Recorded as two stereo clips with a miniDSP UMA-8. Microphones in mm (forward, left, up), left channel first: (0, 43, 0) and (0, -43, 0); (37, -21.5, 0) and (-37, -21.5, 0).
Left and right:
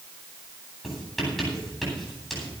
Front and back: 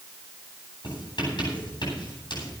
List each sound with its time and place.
0.8 s writing: 5° left, 9.5 m